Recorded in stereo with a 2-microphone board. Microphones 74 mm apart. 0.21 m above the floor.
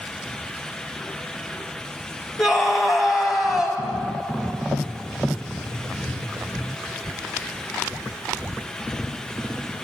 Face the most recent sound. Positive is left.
turn(degrees=-5)  # may be behind; listen again after turning